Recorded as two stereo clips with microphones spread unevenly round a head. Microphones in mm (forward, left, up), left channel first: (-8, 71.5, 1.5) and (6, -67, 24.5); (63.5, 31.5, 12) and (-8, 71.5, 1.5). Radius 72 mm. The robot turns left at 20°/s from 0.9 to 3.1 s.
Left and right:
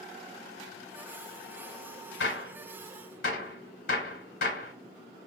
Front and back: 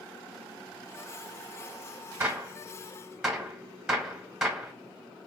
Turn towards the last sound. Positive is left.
turn(degrees=70)